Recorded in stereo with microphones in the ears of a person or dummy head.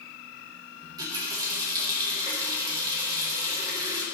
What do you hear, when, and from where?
0.8 s a running tap: 20° right (ahead or behind), 2 m